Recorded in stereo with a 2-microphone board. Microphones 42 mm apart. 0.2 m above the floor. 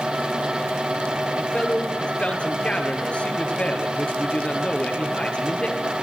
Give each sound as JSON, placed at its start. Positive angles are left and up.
{"t": 1.4, "sound": "a man speaking", "side_deg": 25, "distance_m": 3.5}